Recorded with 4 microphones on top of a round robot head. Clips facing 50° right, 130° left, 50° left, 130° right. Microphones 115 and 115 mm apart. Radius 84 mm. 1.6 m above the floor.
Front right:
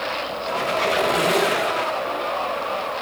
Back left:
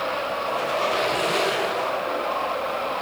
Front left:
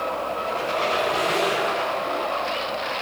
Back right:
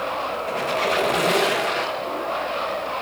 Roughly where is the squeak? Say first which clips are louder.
Front right 3 dB, back right 2 dB; right.